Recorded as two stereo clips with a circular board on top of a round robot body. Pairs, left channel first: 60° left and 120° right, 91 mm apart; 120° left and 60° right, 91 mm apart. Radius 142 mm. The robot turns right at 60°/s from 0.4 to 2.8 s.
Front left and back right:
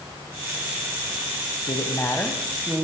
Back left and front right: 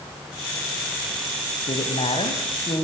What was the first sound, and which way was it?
A woman speaking, 100° left.